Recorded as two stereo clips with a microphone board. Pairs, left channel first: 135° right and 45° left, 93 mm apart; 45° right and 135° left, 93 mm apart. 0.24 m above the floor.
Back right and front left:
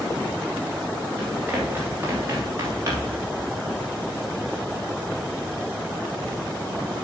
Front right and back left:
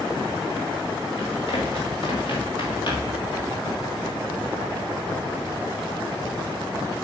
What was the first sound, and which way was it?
Running footsteps, 30° right.